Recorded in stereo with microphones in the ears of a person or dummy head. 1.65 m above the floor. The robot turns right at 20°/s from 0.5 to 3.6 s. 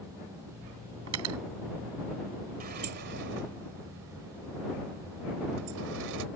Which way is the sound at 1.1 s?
85° right.